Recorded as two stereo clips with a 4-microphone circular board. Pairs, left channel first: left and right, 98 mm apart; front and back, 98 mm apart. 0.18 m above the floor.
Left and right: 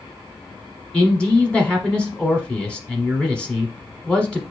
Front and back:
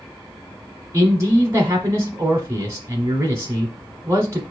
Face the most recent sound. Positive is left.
turn(degrees=160)